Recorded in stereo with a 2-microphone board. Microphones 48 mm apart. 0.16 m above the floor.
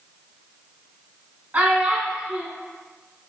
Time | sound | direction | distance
1.5 | a child speaking | 30° right (ahead or behind) | 0.7 m